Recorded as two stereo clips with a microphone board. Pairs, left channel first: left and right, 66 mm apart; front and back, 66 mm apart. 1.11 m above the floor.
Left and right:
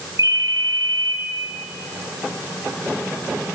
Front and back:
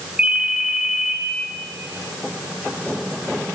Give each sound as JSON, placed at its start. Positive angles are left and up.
{"t": 0.2, "sound": "a ringtone", "azimuth_deg": -105, "distance_m": 5.0}